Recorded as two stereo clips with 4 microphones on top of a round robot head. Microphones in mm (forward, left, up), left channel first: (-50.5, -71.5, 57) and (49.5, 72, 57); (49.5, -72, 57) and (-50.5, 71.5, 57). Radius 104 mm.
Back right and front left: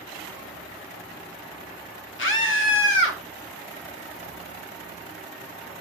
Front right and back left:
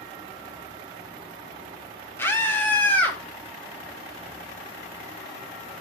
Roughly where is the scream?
Behind right.